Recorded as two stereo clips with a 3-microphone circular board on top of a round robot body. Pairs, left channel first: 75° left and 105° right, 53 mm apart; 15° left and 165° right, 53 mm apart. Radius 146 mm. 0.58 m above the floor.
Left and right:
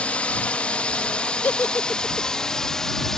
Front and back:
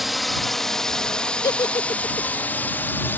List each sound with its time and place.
0.0 s a drone: 105° left; by 3.2 s straight ahead
1.4 s a giggle: 15° left